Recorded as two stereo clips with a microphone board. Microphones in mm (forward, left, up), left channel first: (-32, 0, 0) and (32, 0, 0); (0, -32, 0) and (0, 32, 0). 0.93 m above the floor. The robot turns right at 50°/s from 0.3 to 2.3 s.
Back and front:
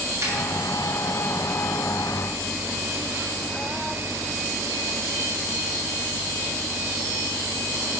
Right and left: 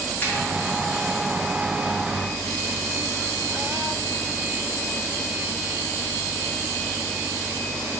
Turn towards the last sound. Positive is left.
turn(degrees=65)